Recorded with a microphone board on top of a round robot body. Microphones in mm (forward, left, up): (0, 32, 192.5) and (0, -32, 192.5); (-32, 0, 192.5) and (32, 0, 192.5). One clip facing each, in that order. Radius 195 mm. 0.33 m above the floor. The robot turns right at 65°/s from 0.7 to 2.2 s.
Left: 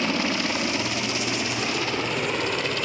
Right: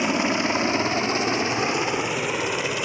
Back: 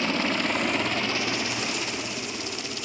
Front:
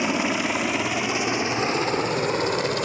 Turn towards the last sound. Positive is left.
turn(degrees=-10)